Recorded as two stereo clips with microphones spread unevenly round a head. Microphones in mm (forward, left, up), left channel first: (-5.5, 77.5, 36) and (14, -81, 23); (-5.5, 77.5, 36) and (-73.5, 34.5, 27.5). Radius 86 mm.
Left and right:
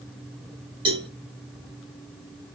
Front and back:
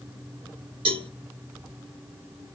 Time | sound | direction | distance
0.8 | a cowbell | 145° right | 1.2 m